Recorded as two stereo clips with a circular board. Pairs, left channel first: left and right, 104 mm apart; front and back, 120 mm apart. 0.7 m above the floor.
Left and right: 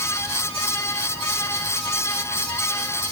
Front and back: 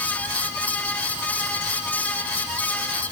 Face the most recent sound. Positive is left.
No sound to turn to.